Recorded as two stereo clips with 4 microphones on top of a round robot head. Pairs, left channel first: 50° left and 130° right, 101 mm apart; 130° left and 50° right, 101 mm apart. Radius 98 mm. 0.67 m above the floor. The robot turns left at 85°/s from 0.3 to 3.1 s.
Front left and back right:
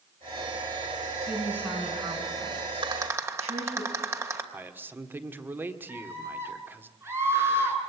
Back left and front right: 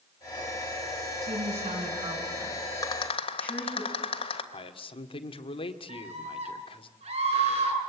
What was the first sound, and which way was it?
A woman speaking, 10° left.